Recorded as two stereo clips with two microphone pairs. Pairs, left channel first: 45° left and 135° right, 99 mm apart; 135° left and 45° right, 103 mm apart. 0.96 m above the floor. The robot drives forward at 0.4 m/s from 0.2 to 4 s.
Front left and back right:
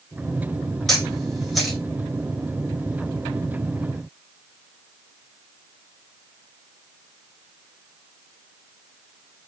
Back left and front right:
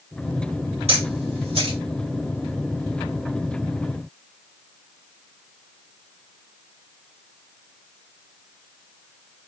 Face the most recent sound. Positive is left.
turn(degrees=-50)